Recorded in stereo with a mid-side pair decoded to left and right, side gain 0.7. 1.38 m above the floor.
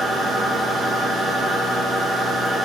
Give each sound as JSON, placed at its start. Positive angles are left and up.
{"t": 0.0, "sound": "a machine running", "azimuth_deg": -20, "distance_m": 1.0}